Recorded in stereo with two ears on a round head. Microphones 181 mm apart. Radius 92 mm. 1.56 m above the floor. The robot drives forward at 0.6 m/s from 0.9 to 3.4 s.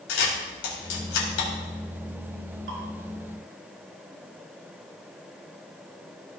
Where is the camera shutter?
70° left (ahead or behind), 3.5 m; by 1.5 s 65° left (ahead or behind), 3.5 m.